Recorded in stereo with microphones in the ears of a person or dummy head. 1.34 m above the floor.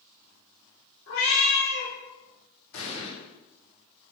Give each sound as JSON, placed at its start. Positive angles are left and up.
{"t": 1.1, "sound": "a cat meowing", "side_deg": 55, "distance_m": 0.9}
{"t": 2.7, "sound": "an explosion", "side_deg": 70, "distance_m": 0.8}